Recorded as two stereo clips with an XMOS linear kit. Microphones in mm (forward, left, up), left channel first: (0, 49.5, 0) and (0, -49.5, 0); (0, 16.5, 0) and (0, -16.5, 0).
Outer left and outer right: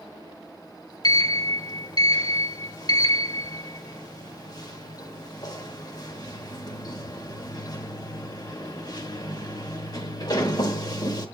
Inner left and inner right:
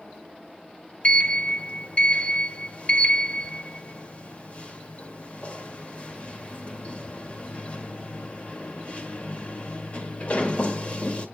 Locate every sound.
1.0 s a sliding door: 45° left (ahead or behind), 1.5 m